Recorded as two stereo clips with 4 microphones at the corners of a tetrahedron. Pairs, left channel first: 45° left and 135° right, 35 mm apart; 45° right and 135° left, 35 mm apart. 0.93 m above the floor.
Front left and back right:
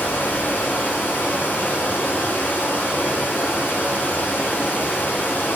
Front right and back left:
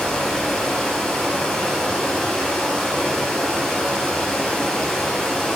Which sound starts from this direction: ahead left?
Running water, at 0.0 s.